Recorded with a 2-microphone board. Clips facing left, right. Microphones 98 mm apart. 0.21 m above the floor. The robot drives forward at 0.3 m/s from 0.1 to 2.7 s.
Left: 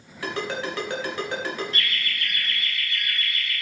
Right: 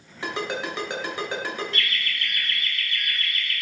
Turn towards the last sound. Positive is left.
turn(degrees=15)  # may be behind; listen again after turning